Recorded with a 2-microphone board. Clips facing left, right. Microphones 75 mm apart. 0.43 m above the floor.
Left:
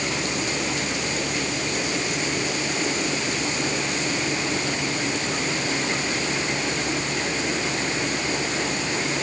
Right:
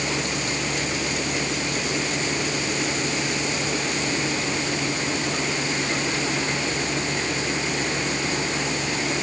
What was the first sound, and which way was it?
Only background noise.